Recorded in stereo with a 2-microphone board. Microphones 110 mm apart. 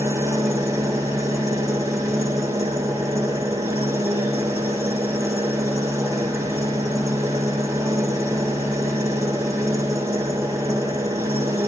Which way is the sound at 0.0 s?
25° right (ahead or behind).